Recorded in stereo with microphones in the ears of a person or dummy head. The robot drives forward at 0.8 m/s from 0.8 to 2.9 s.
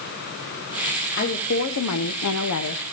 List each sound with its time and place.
1.2 s a woman speaking: 45° left (ahead or behind), 1.1 m; by 2.8 s 55° left (ahead or behind), 1.0 m